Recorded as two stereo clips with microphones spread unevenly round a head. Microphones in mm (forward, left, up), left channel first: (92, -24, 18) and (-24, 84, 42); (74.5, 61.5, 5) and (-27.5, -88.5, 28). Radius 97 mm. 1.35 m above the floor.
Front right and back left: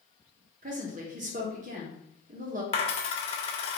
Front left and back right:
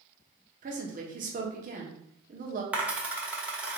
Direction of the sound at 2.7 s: 70° right.